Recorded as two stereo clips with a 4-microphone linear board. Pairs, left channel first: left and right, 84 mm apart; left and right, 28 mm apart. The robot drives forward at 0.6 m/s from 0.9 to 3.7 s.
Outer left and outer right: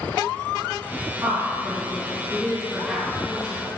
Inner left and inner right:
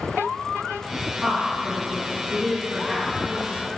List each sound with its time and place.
1.2 s a woman speaking: 30° right (ahead or behind), 2.5 m; by 3.6 s 20° right (ahead or behind), 3.5 m